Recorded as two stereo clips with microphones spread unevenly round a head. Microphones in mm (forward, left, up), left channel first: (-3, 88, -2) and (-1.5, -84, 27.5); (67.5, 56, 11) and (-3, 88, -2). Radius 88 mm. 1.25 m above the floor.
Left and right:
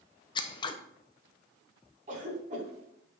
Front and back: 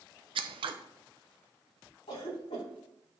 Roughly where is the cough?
Ahead right.